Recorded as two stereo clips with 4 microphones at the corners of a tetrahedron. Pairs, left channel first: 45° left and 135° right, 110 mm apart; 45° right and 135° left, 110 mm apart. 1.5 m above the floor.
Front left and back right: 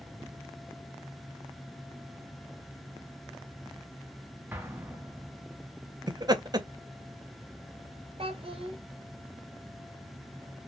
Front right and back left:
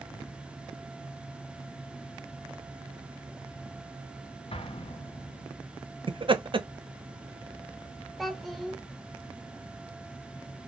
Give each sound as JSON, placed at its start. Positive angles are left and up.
{"t": 4.5, "sound": "an explosion", "azimuth_deg": -60, "distance_m": 0.5}
{"t": 6.1, "sound": "laughter", "azimuth_deg": 175, "distance_m": 0.5}
{"t": 8.2, "sound": "a child speaking", "azimuth_deg": -135, "distance_m": 0.7}